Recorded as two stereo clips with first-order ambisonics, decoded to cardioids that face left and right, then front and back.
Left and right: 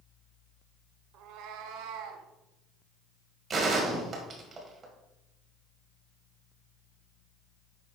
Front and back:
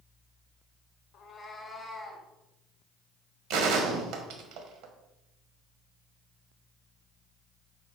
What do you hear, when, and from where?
1.1 s a cat meowing: 50° right, 0.9 m; by 2.2 s 95° right, 1.8 m
3.5 s a gunshot: 155° right, 1.7 m